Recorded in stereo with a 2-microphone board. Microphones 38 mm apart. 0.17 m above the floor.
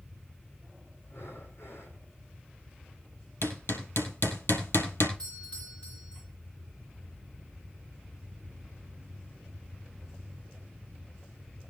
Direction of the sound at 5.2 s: 25° left (ahead or behind).